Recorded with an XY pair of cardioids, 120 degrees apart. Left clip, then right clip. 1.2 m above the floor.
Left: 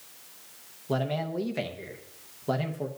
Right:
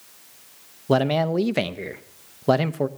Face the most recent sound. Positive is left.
turn(degrees=-55)